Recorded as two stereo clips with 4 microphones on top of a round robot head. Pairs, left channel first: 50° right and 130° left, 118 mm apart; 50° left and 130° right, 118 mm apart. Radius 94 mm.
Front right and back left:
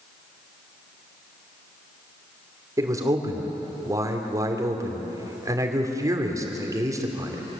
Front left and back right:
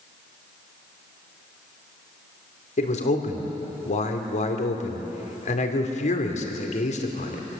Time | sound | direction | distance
2.8 | a man speaking | 65° left | 3 m